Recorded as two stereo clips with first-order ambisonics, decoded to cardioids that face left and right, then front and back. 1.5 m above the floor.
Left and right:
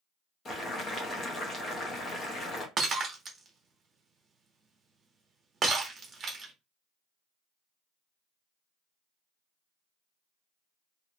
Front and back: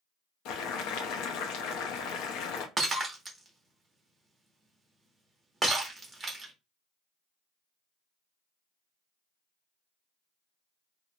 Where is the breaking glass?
115° right, 0.7 m.